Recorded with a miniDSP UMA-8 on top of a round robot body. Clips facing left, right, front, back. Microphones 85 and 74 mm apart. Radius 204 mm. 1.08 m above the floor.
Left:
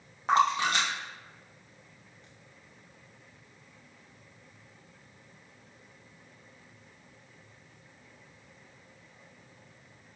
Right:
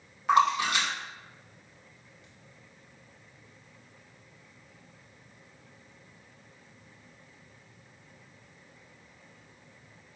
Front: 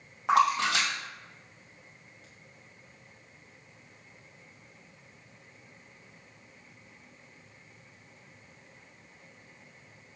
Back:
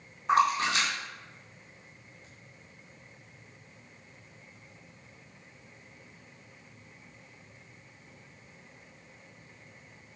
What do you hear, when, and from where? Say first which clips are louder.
0.3 s a splash: right 1 dB, front 1 dB; 30° left, 2.5 m